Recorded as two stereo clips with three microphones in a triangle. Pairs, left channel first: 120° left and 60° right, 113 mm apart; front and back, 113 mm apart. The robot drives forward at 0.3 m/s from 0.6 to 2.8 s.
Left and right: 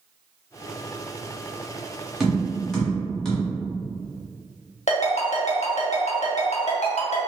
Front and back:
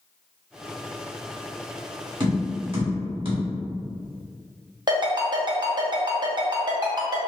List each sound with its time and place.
2.2 s tapping: 150° right, 0.9 m; by 3.4 s 155° right, 1.0 m
4.9 s a ringtone: 130° left, 0.6 m